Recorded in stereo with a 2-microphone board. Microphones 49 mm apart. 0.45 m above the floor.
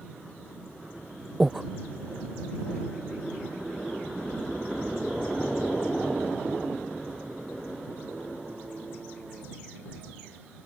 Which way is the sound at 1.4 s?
5° right (ahead or behind).